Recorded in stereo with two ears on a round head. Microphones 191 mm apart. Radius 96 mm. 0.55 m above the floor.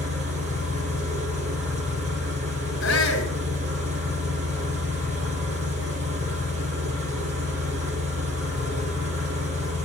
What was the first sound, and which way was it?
An engine running, 30° right (ahead or behind).